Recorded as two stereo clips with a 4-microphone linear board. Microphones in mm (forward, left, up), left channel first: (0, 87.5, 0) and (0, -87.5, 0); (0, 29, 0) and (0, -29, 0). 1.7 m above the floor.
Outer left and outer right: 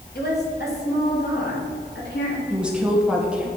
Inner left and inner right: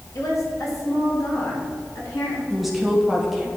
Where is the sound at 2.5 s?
5° right (ahead or behind), 1.6 m.